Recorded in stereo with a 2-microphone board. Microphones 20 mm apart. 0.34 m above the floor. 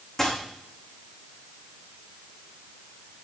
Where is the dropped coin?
15° left (ahead or behind), 5.5 m.